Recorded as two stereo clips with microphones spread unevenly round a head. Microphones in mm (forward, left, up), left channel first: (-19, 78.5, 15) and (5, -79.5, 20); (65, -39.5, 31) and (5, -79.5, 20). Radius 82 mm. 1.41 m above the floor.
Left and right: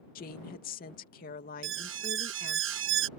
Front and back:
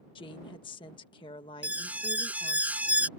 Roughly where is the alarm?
Right.